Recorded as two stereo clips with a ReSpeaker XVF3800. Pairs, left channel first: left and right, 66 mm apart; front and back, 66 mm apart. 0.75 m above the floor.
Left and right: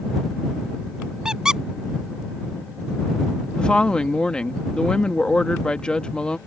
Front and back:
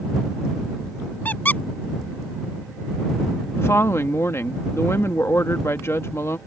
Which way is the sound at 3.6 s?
20° left.